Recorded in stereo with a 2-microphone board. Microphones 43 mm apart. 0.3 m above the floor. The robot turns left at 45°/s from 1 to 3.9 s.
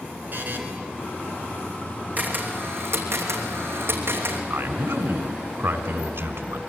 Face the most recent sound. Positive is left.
turn(degrees=-65)  # may be behind; listen again after turning